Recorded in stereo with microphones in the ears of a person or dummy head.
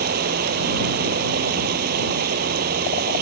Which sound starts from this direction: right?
Running water, at 0.0 s.